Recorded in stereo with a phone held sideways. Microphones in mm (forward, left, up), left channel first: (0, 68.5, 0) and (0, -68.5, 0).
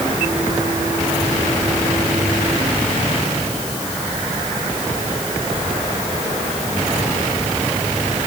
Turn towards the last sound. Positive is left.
No sound to turn to.